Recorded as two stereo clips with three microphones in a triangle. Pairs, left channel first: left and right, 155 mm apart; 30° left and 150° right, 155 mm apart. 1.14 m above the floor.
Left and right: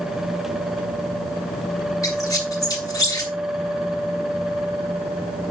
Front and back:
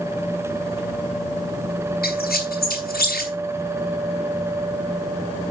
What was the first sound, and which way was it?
A squeak, 20° left.